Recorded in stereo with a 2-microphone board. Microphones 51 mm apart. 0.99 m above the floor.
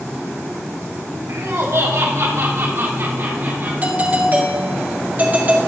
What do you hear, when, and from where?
1.3 s laughter: 70° right (ahead or behind), 2 m; by 3.7 s 45° right (ahead or behind), 3 m
3.8 s a doorbell: 35° right (ahead or behind), 1.9 m